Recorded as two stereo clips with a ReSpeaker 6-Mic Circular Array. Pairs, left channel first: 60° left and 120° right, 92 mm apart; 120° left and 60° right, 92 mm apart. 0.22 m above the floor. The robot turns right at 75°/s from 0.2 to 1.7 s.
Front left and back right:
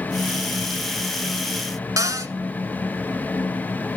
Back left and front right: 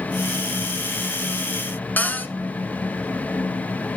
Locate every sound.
2.0 s a cupboard door: 170° right, 0.9 m